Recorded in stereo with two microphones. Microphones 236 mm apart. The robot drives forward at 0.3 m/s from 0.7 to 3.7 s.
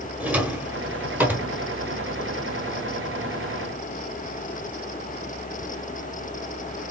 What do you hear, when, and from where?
0.2 s a drawer: 5° right (ahead or behind), 1.3 m; by 1.5 s 10° right (ahead or behind), 1.0 m